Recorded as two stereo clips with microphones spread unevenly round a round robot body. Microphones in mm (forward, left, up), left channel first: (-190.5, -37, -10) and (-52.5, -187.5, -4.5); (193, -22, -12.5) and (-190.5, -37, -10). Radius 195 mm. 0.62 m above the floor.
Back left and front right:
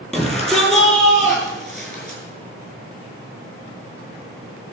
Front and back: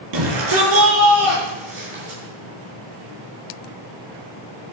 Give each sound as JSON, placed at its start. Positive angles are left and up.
{"t": 0.1, "sound": "a shout", "azimuth_deg": -140, "distance_m": 6.5}